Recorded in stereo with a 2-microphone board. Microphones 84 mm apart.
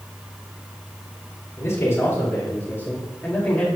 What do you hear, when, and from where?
1.6 s a man speaking: 40° left (ahead or behind), 2.5 m; by 3.6 s 15° left (ahead or behind), 2 m